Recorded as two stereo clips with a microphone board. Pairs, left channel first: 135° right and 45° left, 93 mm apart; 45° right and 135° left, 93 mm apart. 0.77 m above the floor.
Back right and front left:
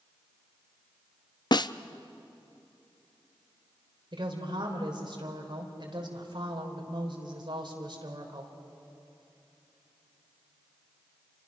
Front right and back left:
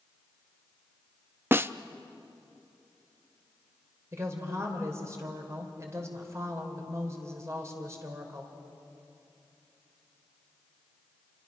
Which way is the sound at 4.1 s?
80° left.